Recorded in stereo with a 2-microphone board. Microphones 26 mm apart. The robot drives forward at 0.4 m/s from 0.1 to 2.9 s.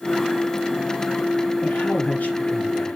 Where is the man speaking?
75° left (ahead or behind), 5.5 m.